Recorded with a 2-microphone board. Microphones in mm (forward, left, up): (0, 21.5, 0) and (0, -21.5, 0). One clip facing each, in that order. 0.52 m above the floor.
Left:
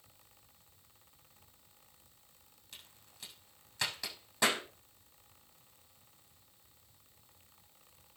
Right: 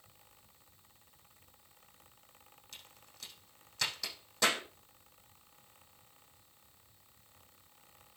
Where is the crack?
10° left (ahead or behind), 5.5 m.